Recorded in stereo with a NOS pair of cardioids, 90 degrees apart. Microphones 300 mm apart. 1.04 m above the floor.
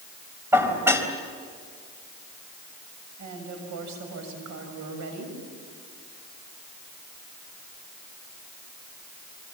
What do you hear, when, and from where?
0.5 s dishes clattering: 10° right, 4 m
3.2 s a woman speaking: 70° right, 7 m